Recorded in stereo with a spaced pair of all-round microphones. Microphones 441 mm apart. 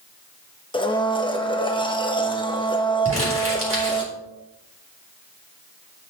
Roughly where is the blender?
Centre.